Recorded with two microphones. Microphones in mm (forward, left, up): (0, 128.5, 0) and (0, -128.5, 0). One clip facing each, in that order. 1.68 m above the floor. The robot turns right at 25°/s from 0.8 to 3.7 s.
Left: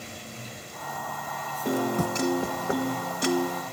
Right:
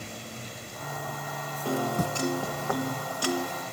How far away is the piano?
About 0.8 m.